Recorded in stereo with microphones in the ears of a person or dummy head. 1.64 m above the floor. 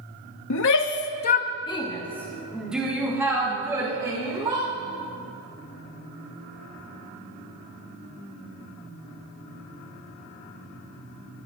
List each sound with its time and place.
0.5 s a shout: 75° left (ahead or behind), 0.9 m; by 4.7 s 20° right (ahead or behind), 2.5 m